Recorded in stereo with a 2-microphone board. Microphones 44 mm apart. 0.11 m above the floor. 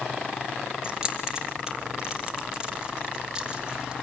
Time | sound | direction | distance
0.8 | keys jangling | 15° right (ahead or behind) | 2.5 m